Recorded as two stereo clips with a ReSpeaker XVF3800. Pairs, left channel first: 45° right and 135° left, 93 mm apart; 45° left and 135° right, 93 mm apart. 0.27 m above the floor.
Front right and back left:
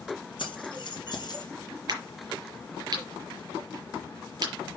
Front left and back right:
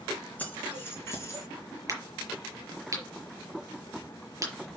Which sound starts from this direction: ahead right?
Keys jangling, at 0.4 s.